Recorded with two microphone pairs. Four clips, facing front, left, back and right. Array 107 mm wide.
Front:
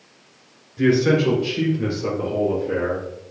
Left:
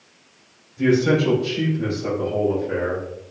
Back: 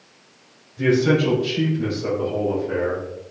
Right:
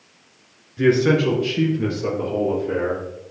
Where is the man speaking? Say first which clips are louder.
Right 1 dB, front 1 dB; 75° right, 2 m; by 3.0 s 90° right, 5 m.